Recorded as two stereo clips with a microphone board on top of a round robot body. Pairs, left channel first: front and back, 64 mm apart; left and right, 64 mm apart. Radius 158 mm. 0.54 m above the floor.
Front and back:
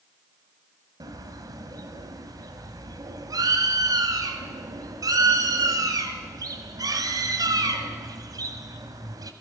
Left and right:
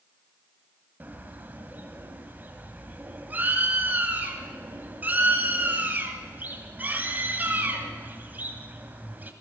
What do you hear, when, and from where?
1.0 s a bird: 155° right, 1.8 m